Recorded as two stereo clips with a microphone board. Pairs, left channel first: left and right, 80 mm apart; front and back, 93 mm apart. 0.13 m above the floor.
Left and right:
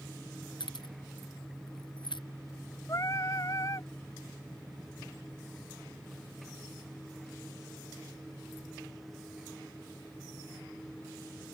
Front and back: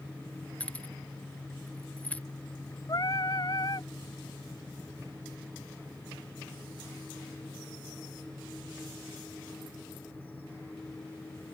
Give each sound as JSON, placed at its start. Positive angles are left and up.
{"t": 0.6, "sound": "keys jangling", "azimuth_deg": 75}
{"t": 2.9, "sound": "singing", "azimuth_deg": 40}